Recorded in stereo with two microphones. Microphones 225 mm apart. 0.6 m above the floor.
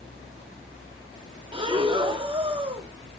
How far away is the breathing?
About 1.2 m.